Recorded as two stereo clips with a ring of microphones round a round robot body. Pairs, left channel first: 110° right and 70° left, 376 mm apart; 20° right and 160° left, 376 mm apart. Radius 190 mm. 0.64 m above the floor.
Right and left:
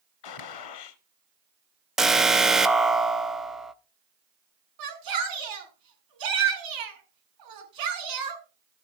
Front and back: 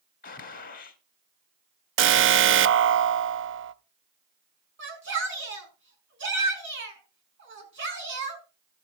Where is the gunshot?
90° right, 1.2 m.